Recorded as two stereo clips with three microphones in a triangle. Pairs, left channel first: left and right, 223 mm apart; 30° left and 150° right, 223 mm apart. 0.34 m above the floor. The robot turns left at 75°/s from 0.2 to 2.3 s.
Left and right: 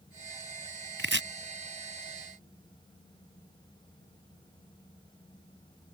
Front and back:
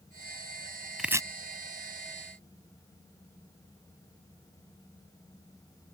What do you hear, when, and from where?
1.0 s chopping: 60° right; by 1.2 s 80° right